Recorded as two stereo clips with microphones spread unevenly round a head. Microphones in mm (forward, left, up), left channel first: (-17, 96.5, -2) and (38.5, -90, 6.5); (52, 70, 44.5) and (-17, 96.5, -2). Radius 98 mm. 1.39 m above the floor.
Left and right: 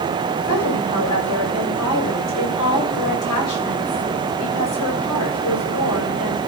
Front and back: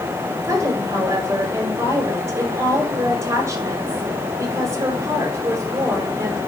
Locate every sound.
0.4 s a woman speaking: 115° left, 7 m